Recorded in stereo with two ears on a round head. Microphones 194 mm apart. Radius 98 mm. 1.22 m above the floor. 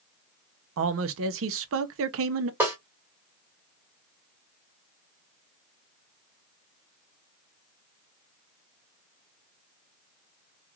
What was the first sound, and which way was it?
A man speaking, 70° right (ahead or behind).